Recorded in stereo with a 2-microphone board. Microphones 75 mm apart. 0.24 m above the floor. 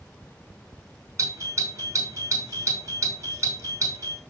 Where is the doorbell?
45° right (ahead or behind), 4 m.